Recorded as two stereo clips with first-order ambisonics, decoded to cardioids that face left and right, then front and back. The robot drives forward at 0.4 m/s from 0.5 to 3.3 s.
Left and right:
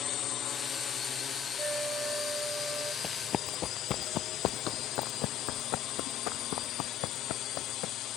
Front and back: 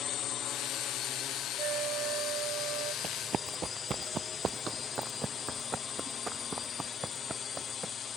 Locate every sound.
0.0 s a drone: 40° left; by 8.2 s 55° left
1.6 s a flute: 155° right; by 2.9 s 160° right
3.0 s running footsteps: 145° left; by 7.9 s 100° left